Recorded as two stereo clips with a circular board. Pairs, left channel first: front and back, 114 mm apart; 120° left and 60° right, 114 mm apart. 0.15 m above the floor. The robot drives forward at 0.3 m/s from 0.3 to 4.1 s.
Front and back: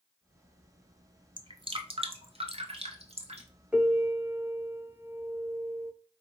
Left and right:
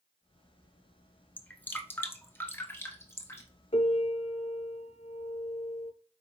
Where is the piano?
100° left, 0.6 m; by 5.9 s 110° left, 0.7 m.